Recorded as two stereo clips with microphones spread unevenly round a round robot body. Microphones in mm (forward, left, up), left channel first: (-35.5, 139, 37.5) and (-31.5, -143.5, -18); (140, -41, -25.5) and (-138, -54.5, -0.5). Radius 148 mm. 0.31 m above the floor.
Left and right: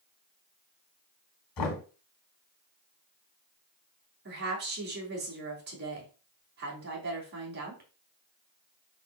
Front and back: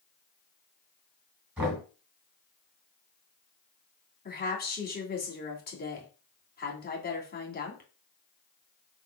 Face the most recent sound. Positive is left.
turn(degrees=-45)